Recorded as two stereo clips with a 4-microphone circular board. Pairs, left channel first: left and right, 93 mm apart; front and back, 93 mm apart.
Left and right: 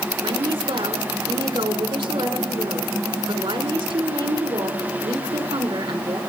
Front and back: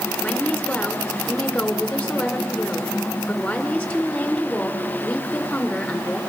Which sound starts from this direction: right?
A woman speaking, at 0.2 s.